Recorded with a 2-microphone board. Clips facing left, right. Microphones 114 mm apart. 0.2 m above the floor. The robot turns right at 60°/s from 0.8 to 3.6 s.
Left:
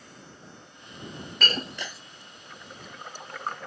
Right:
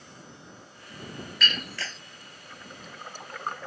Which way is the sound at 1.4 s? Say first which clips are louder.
Left 3 dB; 140° left.